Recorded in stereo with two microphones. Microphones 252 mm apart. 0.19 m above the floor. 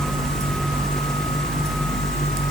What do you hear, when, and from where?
Only background noise.